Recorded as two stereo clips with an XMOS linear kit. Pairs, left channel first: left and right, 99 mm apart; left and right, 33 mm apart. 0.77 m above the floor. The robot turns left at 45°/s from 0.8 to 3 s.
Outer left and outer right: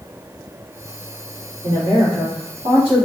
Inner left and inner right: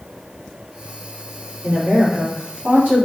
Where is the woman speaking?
50° right, 1.8 m; by 3.0 s 115° right, 1.8 m.